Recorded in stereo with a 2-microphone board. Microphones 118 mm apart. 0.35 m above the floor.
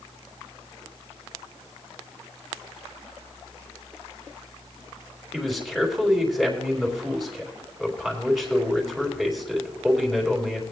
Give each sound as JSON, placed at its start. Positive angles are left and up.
{"t": 5.3, "sound": "a man speaking", "side_deg": 0, "distance_m": 3.0}